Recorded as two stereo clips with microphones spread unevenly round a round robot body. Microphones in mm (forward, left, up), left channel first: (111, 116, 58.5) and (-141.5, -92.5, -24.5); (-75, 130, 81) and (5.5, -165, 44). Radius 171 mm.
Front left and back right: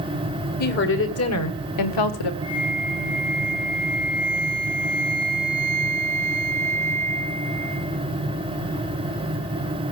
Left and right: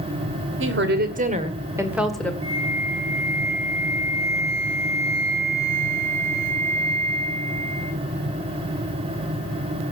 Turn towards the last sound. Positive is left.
turn(degrees=-40)